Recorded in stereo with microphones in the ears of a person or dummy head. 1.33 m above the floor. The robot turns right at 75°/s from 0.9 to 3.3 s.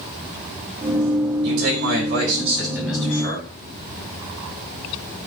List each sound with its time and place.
1.4 s a man speaking: 110° right, 5 m; by 3.5 s 30° left, 5 m